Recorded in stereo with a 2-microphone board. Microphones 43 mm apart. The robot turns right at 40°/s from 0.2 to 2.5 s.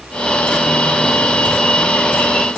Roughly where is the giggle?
I don't hear a giggle.